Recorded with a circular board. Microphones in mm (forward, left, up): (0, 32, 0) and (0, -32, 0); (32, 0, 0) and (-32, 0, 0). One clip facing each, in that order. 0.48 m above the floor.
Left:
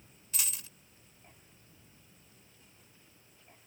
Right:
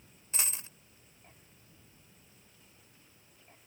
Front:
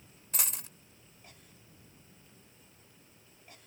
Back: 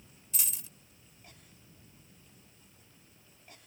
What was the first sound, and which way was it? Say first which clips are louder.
A dropped coin: right 2 dB, front 5 dB; 30° right.